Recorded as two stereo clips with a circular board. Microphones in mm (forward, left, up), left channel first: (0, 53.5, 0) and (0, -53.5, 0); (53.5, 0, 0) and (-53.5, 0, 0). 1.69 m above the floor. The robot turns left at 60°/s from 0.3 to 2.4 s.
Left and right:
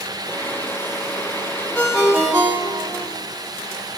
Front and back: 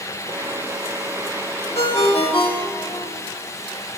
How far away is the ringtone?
About 1.6 m.